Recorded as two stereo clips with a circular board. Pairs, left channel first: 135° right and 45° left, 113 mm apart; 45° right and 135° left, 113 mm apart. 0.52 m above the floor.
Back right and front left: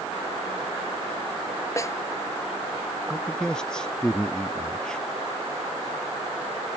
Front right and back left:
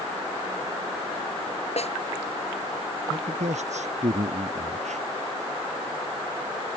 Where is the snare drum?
70° right.